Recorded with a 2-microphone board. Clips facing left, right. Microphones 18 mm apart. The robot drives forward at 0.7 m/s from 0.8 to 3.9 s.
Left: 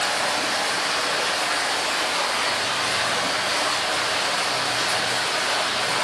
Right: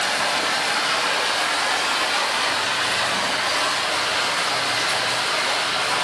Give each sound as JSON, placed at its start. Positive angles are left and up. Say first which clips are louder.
{"t": 0.0, "sound": "running water", "louder": "right 2 dB", "side_deg": -60, "distance_m": 3.0}